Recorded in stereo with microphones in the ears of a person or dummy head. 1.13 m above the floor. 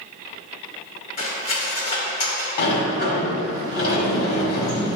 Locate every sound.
1.2 s cutlery clinking: 50° left (ahead or behind), 2 m
2.6 s a sliding door: 65° left (ahead or behind), 1.8 m